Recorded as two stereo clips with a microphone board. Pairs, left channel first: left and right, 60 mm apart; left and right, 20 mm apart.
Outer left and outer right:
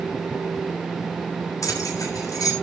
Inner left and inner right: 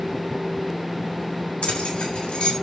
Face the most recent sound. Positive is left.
turn(degrees=85)